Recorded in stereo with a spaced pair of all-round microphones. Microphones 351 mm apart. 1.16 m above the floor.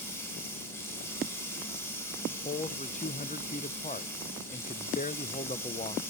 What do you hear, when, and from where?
0.0 s running water: 5° left (ahead or behind), 3.5 m
2.3 s a man speaking: 20° left (ahead or behind), 0.6 m